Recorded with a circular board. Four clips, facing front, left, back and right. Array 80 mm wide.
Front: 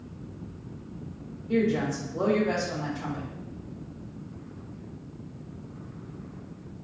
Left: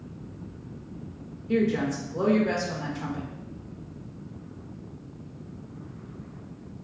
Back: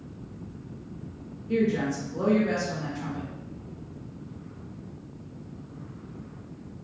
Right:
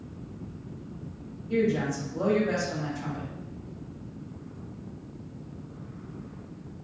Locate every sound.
1.5 s a woman speaking: 95° left, 2 m